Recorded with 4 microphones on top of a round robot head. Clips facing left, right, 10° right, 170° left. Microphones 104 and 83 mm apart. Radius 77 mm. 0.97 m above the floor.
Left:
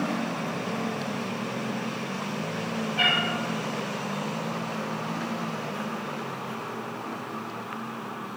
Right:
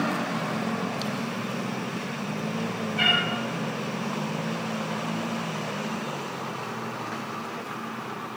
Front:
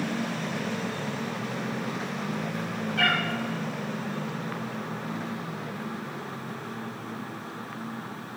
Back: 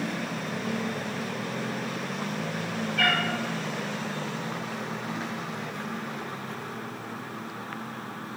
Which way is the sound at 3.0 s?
10° left.